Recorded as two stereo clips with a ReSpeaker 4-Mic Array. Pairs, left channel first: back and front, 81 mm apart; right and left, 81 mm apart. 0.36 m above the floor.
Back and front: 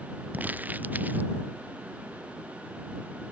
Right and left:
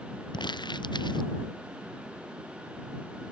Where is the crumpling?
70° right.